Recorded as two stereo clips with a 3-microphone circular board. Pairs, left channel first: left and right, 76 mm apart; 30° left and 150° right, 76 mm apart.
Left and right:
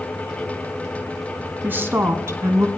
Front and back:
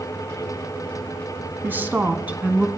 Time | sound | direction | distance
1.6 | a woman speaking | 120° right | 1.2 m